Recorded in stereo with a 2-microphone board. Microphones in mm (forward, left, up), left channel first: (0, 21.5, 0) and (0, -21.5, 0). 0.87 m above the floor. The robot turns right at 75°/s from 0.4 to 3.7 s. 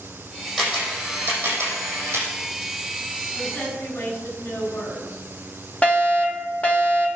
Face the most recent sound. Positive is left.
turn(degrees=30)  # may be behind; listen again after turning